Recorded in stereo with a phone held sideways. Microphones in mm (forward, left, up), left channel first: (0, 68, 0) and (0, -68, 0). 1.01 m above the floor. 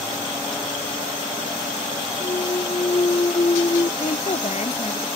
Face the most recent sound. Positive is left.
turn(degrees=50)  # may be behind; listen again after turning